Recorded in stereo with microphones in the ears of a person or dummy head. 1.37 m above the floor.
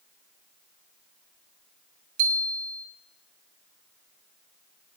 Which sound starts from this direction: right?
A bicycle bell, at 2.2 s.